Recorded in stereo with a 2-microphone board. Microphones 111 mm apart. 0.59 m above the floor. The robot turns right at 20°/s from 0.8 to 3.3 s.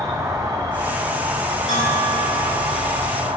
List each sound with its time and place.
0.0 s an insect: 145° right, 0.9 m; by 3.4 s 95° right, 0.9 m
1.7 s a bell: 70° left (ahead or behind), 1.5 m; by 3.0 s 45° left (ahead or behind), 1.5 m